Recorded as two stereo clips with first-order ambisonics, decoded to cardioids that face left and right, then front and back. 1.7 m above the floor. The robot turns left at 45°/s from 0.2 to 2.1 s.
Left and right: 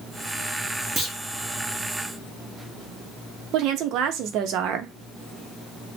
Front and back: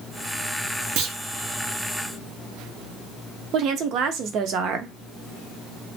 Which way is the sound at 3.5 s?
130° right.